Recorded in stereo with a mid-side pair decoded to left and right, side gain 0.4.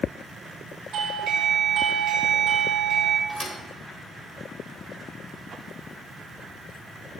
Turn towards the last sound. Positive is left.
turn(degrees=-10)